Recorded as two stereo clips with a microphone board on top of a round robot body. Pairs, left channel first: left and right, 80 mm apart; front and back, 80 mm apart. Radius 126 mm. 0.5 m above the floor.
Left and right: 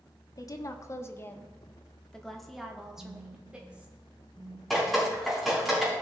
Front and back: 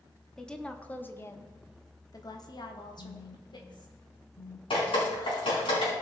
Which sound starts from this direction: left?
A woman speaking, at 0.4 s.